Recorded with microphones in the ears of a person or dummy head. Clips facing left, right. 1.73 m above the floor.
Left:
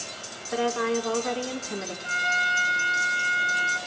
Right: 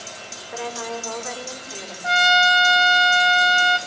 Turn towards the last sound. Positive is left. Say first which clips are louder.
# right 12 dB
turn(degrees=-70)  # may be behind; listen again after turning